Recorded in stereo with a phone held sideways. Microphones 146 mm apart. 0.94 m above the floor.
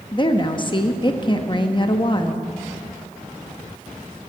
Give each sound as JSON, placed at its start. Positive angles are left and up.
{"t": 0.1, "sound": "a woman speaking", "side_deg": 35, "distance_m": 0.9}